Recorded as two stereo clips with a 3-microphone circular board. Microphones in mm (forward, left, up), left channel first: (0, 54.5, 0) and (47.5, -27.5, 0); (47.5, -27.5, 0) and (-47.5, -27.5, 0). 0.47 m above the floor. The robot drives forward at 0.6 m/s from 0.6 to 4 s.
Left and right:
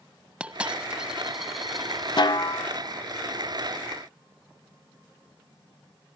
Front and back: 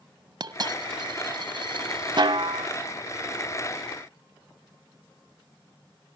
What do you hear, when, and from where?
0.4 s a dropped coin: 140° right, 1.7 m; by 2.3 s 155° right, 2.5 m
2.2 s a snare drum: 150° left, 0.5 m; by 2.7 s 160° left, 0.8 m